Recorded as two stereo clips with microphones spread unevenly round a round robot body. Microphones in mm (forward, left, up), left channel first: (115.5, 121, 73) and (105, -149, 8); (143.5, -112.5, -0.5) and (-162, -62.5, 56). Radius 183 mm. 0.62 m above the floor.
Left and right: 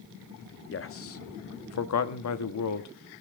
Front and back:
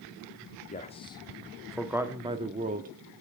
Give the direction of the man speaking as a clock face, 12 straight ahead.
11 o'clock.